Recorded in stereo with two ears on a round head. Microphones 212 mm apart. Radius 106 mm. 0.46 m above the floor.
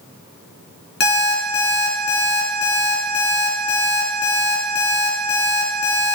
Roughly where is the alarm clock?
Left.